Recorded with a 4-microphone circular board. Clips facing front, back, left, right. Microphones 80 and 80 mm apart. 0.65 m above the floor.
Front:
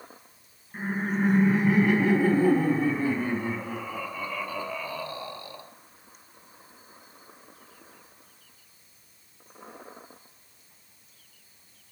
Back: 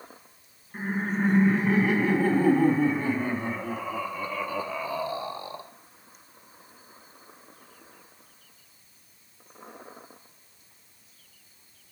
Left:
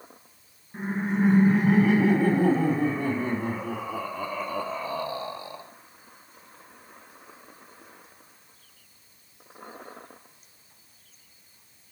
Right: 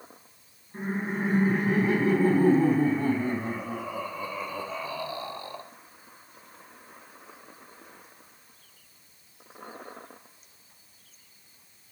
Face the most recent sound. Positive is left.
turn(degrees=170)